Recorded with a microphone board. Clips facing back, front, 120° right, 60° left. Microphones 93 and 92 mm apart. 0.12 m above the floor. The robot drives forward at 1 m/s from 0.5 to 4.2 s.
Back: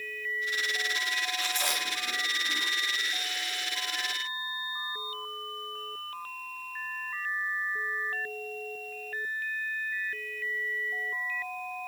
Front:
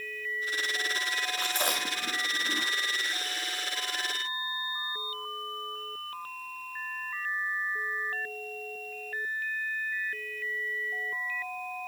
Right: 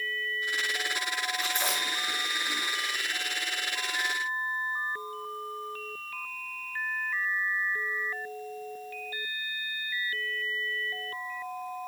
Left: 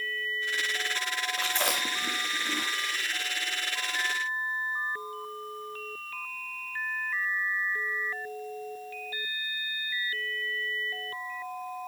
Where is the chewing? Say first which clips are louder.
Front 2 dB, left 1 dB; 40° left, 6 m; by 2.7 s 50° left, 5.5 m.